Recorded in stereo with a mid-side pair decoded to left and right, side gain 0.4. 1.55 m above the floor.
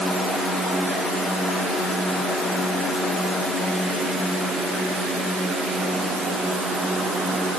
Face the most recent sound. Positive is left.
No sound to turn to.